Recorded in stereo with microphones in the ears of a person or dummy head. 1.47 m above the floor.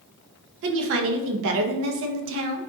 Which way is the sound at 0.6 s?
65° right (ahead or behind).